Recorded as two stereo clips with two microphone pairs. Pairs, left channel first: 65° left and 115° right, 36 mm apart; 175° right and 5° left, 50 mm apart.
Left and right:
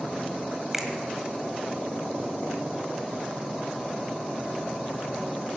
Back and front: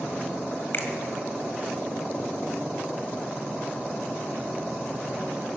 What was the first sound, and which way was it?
A finger snap, 165° left.